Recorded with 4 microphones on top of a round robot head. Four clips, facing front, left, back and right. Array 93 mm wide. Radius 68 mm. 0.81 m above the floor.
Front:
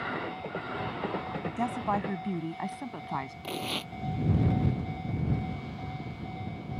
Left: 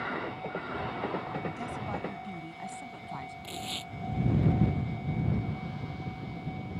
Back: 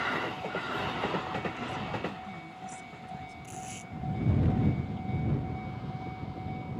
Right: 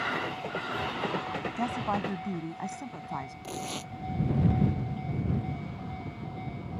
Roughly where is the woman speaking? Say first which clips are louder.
Right 6 dB, front 6 dB; ahead right.